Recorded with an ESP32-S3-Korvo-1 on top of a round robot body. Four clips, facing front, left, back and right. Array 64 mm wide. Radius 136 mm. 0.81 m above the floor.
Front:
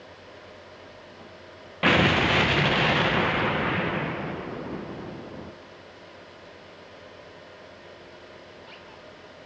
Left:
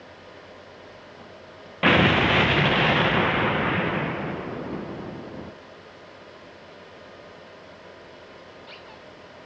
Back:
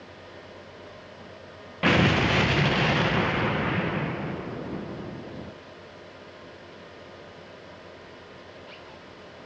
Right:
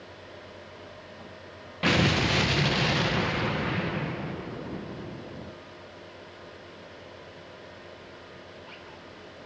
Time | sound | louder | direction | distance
1.8 | an explosion | left 6 dB, front 1 dB | 75° left | 0.8 m